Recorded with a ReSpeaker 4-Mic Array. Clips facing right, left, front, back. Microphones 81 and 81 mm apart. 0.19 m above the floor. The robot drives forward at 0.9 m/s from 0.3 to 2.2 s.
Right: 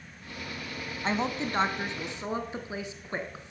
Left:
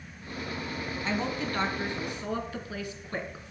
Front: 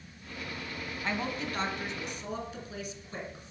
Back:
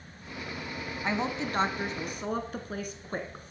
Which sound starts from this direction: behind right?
A woman speaking, at 1.0 s.